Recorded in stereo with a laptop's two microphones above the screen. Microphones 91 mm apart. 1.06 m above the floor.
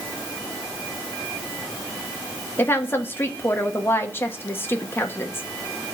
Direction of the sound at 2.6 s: 25° left (ahead or behind).